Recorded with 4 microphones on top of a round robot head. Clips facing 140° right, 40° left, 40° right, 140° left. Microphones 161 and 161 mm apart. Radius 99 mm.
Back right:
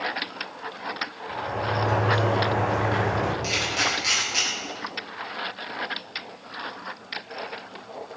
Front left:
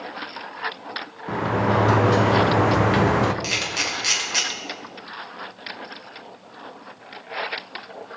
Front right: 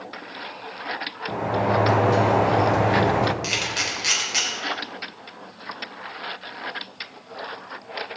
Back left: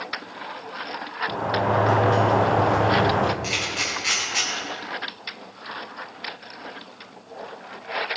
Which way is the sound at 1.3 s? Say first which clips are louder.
Front left 7 dB, front right 1 dB; 40° left.